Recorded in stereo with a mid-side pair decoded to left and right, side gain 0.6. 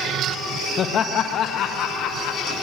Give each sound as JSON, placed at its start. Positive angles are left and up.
{"t": 0.8, "sound": "laughter", "azimuth_deg": 45, "distance_m": 1.3}